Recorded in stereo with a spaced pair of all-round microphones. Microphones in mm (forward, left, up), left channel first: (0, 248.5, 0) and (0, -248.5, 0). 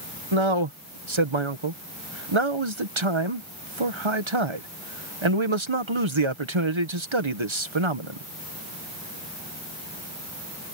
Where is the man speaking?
65° right (ahead or behind).